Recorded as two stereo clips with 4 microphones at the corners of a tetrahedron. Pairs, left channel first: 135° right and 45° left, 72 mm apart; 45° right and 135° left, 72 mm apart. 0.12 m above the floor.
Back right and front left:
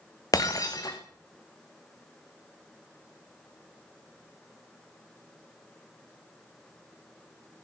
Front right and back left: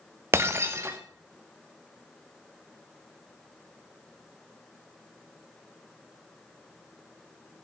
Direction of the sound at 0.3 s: 170° right.